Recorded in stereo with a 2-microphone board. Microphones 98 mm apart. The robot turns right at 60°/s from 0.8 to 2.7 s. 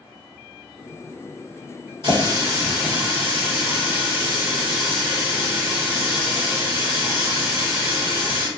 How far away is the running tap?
About 0.9 m.